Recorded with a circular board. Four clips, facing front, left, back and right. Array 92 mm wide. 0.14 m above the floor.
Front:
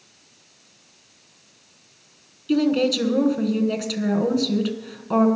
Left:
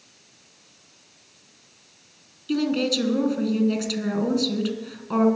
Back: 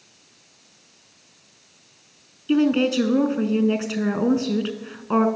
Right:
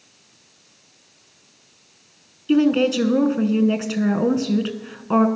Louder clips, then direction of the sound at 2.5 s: Right 7 dB, back 1 dB; 130° right.